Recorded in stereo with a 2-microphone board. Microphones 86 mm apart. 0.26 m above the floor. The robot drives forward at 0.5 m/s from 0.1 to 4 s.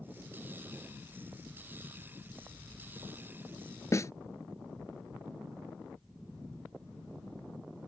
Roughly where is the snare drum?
Left.